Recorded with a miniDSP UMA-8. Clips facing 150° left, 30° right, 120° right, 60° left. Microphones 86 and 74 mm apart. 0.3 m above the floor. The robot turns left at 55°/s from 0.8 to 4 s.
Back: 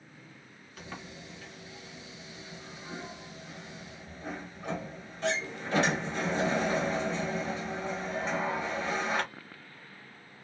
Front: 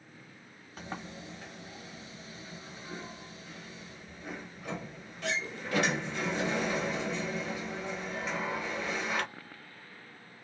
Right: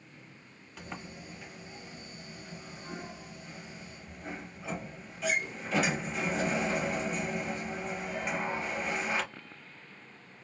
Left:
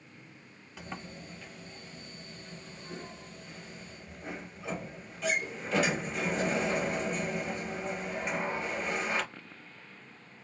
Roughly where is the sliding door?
Ahead right.